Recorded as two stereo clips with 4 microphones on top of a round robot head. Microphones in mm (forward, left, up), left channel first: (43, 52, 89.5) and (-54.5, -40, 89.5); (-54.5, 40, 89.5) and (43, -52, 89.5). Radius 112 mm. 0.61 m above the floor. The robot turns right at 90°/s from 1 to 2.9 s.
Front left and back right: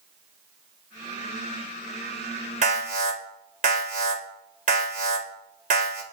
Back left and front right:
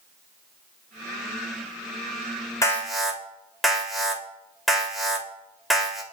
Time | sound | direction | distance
2.6 | an alarm | 160° right | 3.5 m